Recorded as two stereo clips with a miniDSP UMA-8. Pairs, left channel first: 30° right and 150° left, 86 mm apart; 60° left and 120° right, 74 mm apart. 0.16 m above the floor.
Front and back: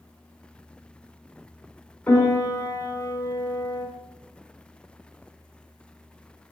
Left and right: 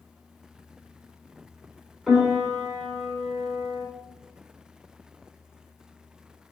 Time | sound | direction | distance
2.1 | a piano | 25° right | 1.0 m